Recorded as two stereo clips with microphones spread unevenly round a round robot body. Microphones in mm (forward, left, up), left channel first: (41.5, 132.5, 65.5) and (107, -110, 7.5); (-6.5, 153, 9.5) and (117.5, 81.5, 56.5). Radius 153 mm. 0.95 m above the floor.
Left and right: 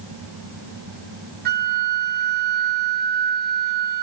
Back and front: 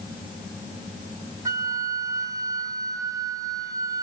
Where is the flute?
25° right, 0.6 m.